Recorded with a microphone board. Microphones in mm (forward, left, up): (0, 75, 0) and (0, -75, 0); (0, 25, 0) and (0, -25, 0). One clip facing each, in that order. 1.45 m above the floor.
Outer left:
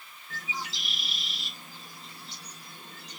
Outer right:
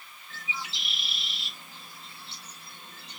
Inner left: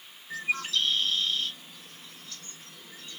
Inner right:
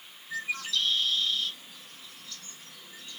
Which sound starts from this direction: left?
A bird, at 0.3 s.